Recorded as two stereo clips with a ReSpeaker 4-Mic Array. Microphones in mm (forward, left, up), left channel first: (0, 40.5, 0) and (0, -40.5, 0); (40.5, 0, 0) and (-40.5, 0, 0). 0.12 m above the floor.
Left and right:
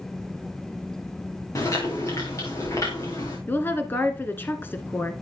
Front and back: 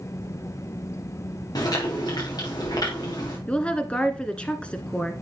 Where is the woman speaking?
60° left, 1.2 m.